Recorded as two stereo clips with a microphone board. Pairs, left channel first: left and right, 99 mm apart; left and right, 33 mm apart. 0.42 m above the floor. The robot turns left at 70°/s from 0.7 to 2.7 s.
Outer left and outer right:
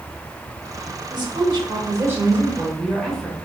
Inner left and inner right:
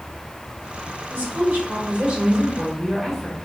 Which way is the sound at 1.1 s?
75° right.